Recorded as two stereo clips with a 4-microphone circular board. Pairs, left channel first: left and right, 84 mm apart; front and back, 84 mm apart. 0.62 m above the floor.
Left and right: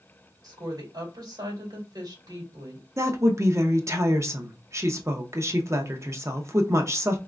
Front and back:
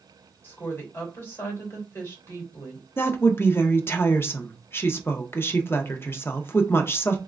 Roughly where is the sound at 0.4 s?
Ahead right.